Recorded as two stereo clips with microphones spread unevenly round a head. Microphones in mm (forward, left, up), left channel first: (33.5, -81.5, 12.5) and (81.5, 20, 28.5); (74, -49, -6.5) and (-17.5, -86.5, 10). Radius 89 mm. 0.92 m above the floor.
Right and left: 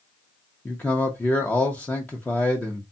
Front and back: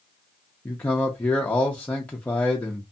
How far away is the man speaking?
About 0.6 m.